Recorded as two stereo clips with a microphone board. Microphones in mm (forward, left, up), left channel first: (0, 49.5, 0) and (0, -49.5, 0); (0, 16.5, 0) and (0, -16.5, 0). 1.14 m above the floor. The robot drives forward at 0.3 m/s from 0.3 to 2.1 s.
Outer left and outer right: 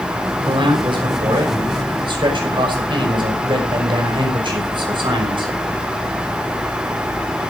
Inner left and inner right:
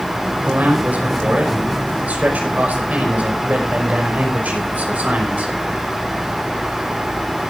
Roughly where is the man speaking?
Right.